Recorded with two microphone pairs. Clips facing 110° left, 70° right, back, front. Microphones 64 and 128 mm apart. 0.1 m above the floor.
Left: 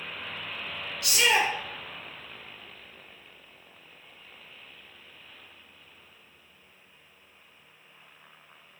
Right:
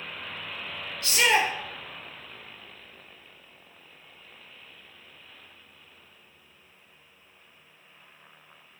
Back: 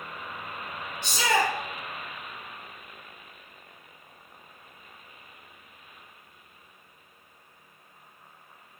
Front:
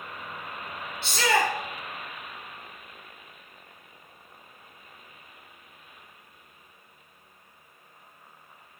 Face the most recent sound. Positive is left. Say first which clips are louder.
# right 1 dB, front 1 dB
turn(degrees=-110)